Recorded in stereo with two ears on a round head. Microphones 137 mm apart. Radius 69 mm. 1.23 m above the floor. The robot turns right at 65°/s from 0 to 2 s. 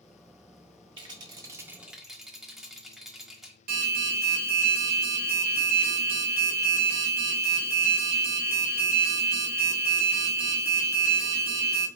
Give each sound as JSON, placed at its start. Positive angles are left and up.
{"t": 1.0, "sound": "a rattle", "azimuth_deg": -75, "distance_m": 1.2}
{"t": 3.7, "sound": "an alarm", "side_deg": -60, "distance_m": 1.6}